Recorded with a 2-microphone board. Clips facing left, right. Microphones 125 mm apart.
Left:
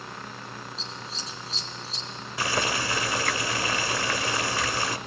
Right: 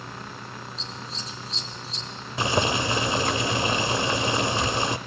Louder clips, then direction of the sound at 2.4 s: Right 4 dB; 25° right (ahead or behind).